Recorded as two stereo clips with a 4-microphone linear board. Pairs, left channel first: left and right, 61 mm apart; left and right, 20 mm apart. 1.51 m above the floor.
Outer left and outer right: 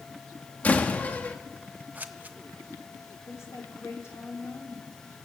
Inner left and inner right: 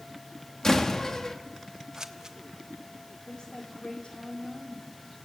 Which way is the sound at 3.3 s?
45° left (ahead or behind).